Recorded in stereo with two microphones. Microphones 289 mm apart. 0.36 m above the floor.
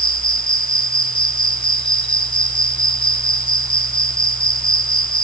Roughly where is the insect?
Left.